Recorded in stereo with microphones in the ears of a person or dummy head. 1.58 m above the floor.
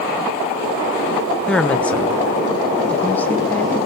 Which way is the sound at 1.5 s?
5° left (ahead or behind).